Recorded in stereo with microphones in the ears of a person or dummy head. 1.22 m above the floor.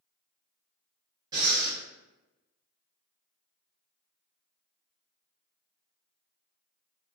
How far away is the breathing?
About 1.1 m.